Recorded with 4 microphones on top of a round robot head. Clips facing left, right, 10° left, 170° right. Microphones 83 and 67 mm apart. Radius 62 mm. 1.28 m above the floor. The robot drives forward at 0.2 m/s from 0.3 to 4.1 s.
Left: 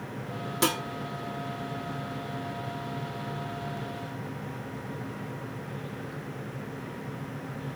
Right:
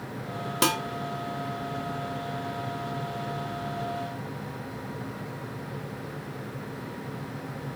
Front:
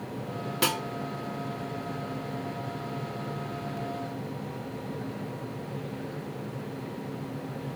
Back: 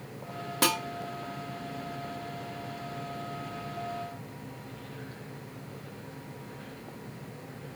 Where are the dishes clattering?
110° right, 0.5 m; by 0.8 s 115° right, 0.5 m.